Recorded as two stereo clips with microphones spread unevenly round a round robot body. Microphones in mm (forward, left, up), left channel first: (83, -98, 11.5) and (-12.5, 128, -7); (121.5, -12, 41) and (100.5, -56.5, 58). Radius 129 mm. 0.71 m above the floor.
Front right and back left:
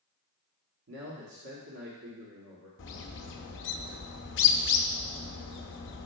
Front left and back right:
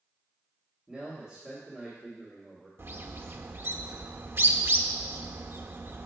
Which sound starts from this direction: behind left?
A man speaking, at 0.9 s.